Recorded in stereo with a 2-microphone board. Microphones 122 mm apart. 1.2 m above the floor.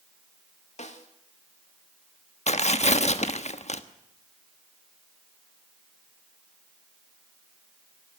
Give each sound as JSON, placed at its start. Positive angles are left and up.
{"t": 0.8, "sound": "a snare drum", "side_deg": 65, "distance_m": 2.0}
{"t": 2.5, "sound": "tearing paper", "side_deg": 60, "distance_m": 1.2}